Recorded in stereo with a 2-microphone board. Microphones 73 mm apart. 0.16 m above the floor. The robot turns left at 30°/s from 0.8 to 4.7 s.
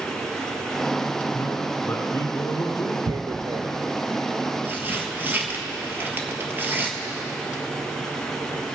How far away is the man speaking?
About 1.9 m.